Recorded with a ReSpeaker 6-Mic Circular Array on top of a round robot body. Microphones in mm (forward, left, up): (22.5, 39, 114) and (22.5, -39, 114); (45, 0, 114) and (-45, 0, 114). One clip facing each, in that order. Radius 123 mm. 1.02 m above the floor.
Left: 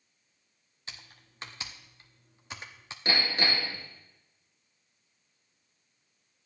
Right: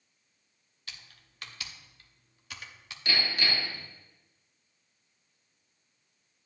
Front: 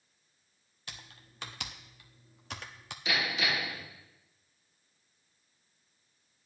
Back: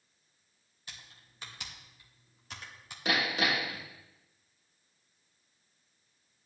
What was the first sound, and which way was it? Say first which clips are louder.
Typing on a keyboard: left 2 dB, front 3 dB; 25° left.